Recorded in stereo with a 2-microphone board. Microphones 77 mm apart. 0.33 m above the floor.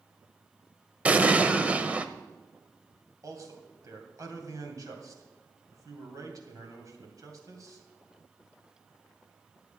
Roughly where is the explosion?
Right.